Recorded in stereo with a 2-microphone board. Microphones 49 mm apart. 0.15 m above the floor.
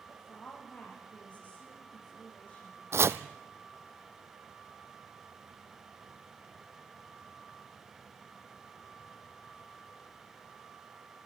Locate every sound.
0.1 s a woman speaking: 30° left (ahead or behind), 8.5 m
2.9 s chopping: 70° right (ahead or behind), 0.9 m